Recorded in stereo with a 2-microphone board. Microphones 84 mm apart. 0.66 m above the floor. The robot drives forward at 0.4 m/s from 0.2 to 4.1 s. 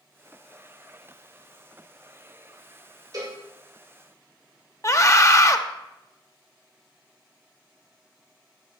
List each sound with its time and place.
3.1 s a cowbell: 50° right (ahead or behind), 1.9 m
4.8 s a scream: 40° left (ahead or behind), 0.7 m